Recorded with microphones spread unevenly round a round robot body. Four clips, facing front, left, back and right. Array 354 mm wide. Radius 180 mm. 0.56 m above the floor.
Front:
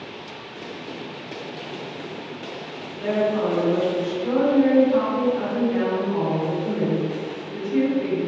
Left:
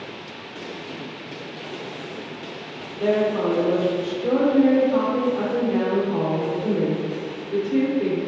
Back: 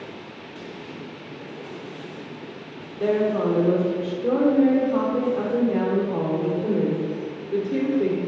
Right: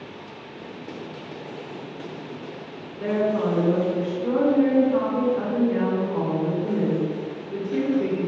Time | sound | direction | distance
3.0 | a woman speaking | 155° left | 2.0 m